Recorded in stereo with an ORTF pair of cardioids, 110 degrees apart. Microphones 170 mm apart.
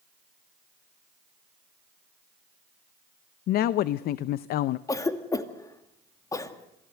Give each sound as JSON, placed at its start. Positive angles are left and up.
{"t": 3.5, "sound": "a woman speaking", "azimuth_deg": 70, "distance_m": 0.6}
{"t": 4.9, "sound": "a cough", "azimuth_deg": 20, "distance_m": 2.0}